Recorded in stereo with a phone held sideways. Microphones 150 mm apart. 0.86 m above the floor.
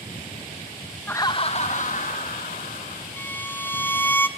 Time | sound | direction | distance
1.1 | laughter | 10° left (ahead or behind) | 0.5 m
3.2 | a violin | 15° left (ahead or behind) | 1.0 m